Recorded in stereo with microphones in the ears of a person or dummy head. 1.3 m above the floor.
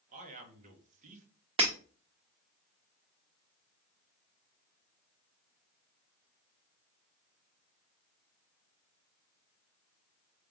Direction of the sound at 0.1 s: 40° right (ahead or behind).